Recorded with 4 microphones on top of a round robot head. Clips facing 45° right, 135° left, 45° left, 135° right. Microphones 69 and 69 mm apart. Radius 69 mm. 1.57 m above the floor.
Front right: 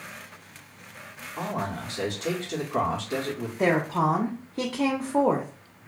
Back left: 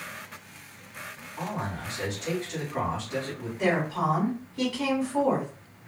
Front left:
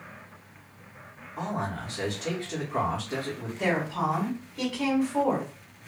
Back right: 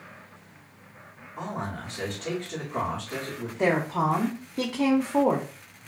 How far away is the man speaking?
About 0.8 m.